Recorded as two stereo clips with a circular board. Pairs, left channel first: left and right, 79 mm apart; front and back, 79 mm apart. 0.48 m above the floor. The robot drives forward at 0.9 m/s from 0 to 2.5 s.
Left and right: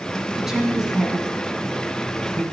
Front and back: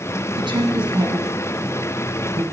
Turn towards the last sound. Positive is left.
turn(degrees=-175)